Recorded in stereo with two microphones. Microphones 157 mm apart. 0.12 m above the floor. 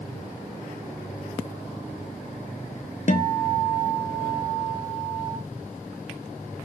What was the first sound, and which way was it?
A guitar, 55° left (ahead or behind).